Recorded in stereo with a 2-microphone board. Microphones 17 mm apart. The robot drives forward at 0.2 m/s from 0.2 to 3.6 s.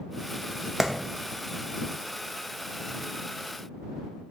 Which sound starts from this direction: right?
A clap, at 0.8 s.